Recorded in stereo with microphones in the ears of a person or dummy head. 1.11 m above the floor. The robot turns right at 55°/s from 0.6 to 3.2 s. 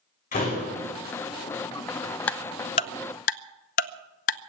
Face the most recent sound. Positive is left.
turn(degrees=45)  # may be behind; listen again after turning